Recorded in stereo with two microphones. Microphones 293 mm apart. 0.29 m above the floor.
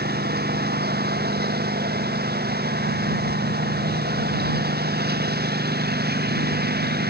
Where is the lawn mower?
30° right (ahead or behind).